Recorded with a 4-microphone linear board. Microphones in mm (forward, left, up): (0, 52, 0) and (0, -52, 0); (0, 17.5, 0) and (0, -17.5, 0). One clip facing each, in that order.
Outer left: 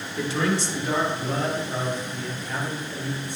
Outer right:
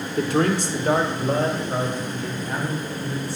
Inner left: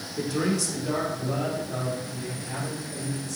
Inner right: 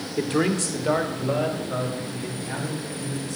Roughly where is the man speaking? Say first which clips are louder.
Outer right 4 dB, inner right 3 dB; right.